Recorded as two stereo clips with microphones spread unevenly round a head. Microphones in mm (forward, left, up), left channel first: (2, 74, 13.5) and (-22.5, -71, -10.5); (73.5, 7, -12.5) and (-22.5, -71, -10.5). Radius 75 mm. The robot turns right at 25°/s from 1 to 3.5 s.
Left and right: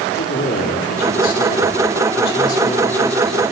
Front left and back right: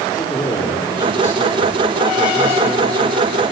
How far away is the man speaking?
About 4 m.